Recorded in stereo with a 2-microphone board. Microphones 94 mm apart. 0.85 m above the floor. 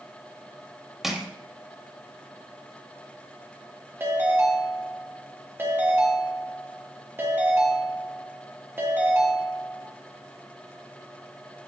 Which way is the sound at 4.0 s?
25° right (ahead or behind).